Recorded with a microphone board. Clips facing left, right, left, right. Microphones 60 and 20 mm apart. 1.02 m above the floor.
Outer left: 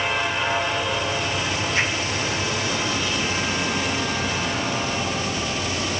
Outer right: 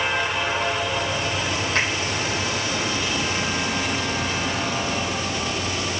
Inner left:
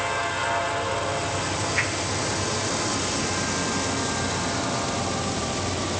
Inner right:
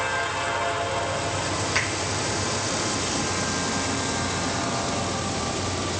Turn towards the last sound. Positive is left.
turn(degrees=-60)  # may be behind; listen again after turning